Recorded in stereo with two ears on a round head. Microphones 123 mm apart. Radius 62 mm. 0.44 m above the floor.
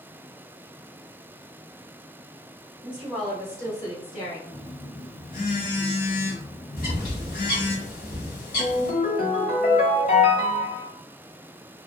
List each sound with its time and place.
2.8 s a woman speaking: 20° right (ahead or behind), 0.7 m; by 4.4 s 35° left (ahead or behind), 1.5 m
4.5 s a phone buzzing: 70° left (ahead or behind), 1.2 m
6.8 s a bird: 70° left (ahead or behind), 1.3 m
8.6 s a ringtone: 55° left (ahead or behind), 1.6 m